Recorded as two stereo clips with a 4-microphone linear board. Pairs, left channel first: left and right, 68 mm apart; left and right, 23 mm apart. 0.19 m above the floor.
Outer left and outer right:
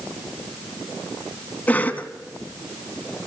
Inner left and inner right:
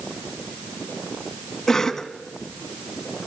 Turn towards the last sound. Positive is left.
turn(degrees=25)  # may be behind; listen again after turning